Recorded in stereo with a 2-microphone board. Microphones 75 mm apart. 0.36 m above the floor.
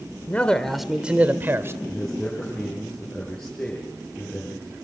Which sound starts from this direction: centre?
A man speaking, at 1.8 s.